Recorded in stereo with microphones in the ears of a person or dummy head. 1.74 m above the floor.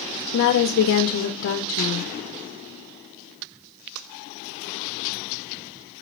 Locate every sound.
0.3 s a woman speaking: 55° left (ahead or behind), 0.6 m